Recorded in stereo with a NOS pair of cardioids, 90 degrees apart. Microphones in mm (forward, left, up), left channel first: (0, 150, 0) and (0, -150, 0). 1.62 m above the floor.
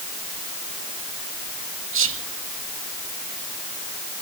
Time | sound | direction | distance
1.9 | whispering | 45° right | 2.5 m